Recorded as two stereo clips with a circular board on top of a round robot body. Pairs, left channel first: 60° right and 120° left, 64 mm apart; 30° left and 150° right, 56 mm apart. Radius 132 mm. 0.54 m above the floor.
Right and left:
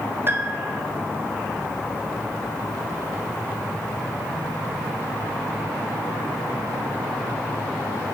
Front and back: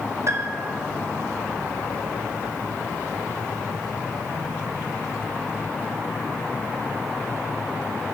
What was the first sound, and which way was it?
A piano, 175° left.